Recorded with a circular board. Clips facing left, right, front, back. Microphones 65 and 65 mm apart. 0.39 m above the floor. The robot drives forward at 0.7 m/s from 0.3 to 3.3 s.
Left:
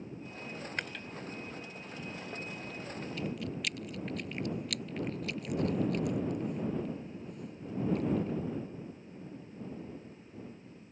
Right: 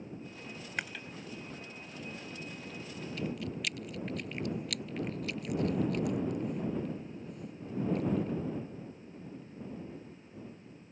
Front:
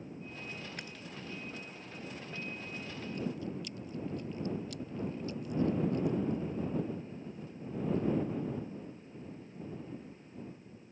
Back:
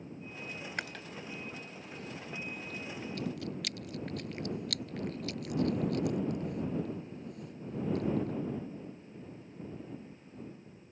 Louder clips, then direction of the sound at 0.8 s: Right 3 dB, back 5 dB; 170° right.